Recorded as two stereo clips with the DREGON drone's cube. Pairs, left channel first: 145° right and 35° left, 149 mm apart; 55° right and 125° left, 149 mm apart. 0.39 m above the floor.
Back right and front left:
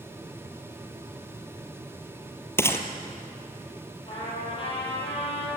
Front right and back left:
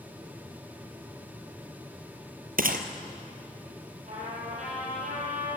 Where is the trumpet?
160° left, 8.5 m.